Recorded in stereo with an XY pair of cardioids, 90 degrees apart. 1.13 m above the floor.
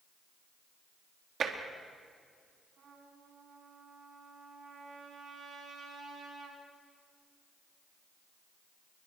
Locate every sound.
1.4 s tapping: 55° right, 3 m
2.8 s a trumpet: 65° right, 6.5 m